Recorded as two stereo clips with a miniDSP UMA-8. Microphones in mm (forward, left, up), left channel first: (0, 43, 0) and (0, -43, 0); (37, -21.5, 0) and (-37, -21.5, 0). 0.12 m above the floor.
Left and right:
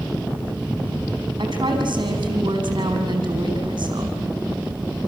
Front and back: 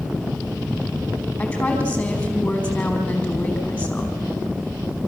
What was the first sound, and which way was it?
A woman speaking, 60° right.